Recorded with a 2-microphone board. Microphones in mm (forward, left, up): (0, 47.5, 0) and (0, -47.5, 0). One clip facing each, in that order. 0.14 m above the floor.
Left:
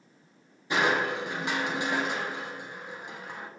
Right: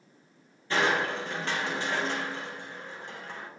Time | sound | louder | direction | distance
0.7 | crushing | left 1 dB | 15° left (ahead or behind) | 0.5 m